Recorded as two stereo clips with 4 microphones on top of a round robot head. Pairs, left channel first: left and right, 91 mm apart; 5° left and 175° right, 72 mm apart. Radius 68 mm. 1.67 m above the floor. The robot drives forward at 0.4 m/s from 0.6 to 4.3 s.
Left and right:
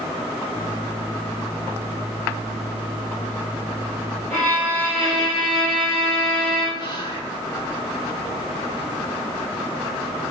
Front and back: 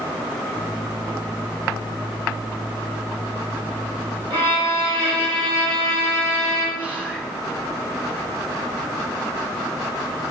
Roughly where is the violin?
Behind.